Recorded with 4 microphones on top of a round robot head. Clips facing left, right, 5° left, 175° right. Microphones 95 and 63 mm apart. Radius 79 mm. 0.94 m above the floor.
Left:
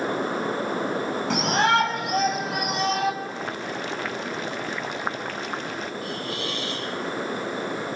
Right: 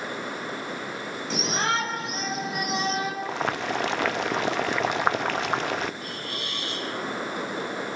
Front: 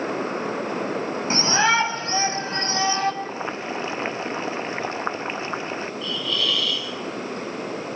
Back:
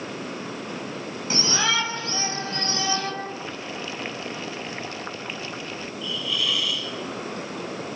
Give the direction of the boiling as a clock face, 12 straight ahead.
2 o'clock.